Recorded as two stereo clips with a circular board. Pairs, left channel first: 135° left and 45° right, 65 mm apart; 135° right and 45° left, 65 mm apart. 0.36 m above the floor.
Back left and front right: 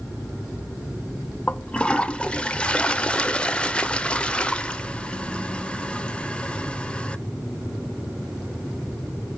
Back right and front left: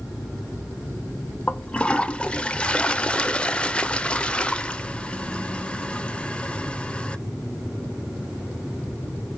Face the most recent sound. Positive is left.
turn(degrees=180)